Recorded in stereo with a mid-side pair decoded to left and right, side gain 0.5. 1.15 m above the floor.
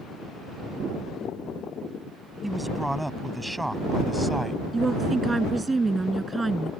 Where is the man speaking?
5° right.